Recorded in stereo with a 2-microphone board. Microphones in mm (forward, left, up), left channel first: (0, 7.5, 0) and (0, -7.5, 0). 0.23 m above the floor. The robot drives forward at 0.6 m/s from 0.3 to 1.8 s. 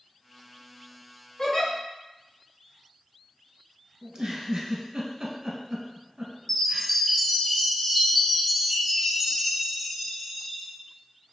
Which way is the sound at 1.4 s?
50° left (ahead or behind).